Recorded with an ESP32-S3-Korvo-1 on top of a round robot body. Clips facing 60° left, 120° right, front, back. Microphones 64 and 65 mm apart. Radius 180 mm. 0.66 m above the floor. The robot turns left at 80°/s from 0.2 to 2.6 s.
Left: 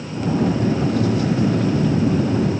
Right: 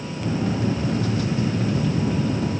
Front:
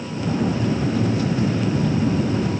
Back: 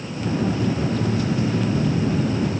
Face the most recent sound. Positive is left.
No sound to turn to.